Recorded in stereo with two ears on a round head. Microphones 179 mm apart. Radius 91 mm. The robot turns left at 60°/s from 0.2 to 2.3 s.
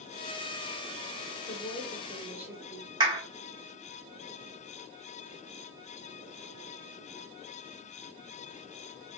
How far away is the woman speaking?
About 1.6 m.